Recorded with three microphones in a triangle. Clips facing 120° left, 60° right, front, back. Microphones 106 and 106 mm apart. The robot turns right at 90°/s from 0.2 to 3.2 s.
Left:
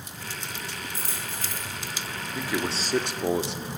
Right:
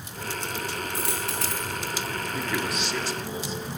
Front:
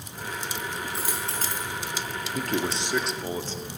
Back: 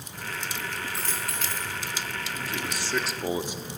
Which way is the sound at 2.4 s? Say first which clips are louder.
Left 2 dB, front 9 dB; 25° left.